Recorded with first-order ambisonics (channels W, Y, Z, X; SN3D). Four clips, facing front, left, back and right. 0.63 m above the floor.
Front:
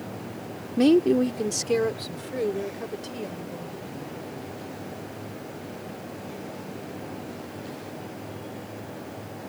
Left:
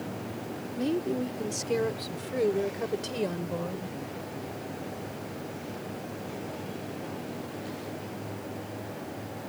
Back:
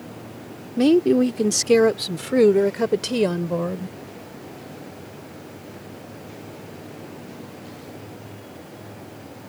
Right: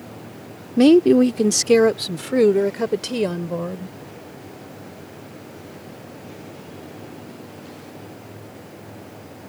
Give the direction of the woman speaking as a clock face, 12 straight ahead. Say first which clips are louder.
Right 17 dB, back 3 dB; 3 o'clock.